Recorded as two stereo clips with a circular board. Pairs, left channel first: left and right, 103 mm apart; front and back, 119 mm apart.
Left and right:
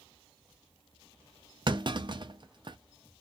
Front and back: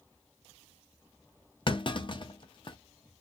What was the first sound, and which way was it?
A clunk, 45° right.